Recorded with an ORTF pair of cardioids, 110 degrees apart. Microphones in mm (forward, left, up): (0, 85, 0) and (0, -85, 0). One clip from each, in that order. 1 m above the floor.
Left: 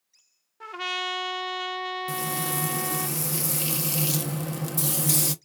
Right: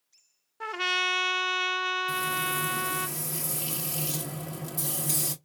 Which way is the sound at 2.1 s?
35° left.